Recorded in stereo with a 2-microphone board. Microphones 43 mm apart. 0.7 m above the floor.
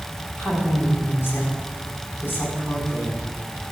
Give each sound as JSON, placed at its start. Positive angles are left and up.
{"t": 0.4, "sound": "a woman speaking", "side_deg": 75, "distance_m": 6.5}